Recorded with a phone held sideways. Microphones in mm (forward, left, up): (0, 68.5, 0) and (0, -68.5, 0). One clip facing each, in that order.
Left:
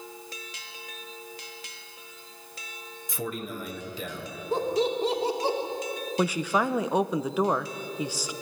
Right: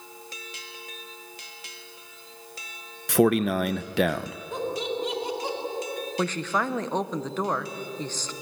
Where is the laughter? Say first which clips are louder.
Left 4 dB; 35° left (ahead or behind), 3.5 m.